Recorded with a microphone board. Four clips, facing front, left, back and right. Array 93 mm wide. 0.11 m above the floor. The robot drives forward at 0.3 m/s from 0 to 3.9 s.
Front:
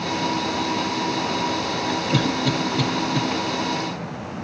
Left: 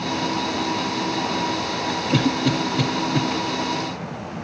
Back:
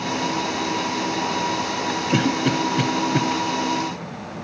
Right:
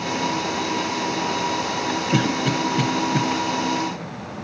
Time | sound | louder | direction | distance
2.1 | a cough | left 2 dB, back 3 dB | 145° right | 1.2 m